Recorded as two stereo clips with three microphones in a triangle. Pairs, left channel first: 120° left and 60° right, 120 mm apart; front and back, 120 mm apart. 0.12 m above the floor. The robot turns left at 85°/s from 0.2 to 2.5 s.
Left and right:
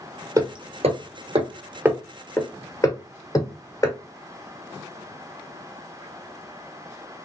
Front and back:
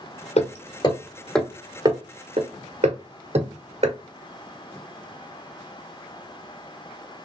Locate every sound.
0.4 s hammering: straight ahead, 0.9 m; by 4.0 s 175° left, 0.9 m